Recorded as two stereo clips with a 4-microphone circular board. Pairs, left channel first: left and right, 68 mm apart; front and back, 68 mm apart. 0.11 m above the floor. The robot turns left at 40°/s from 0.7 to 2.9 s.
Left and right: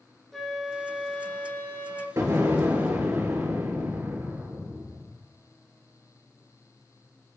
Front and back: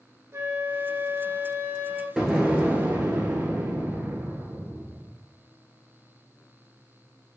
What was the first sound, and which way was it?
A flute, 175° left.